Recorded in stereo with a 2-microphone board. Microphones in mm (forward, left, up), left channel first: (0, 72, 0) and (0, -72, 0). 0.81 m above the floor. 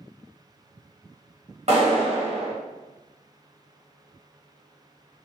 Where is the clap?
45° right (ahead or behind), 1.2 m.